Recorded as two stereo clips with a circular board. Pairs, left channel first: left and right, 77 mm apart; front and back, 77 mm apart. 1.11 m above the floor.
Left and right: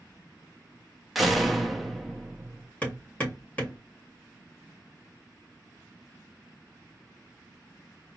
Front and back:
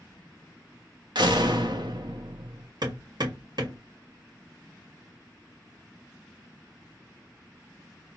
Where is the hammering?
160° left, 2 m.